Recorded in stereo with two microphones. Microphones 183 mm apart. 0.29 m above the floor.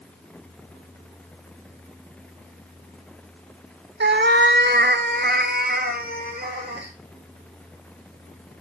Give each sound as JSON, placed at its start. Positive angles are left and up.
{"t": 4.0, "sound": "a cat meowing", "side_deg": -80, "distance_m": 0.5}